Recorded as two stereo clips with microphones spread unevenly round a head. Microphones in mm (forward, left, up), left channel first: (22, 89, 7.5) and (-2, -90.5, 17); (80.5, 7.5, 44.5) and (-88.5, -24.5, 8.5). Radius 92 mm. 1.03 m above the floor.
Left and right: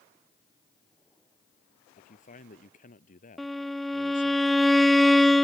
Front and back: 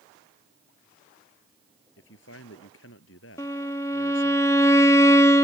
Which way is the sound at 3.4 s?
15° right.